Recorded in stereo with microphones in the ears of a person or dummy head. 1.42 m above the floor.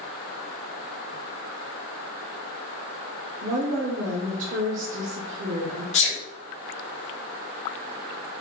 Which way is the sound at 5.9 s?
35° left (ahead or behind).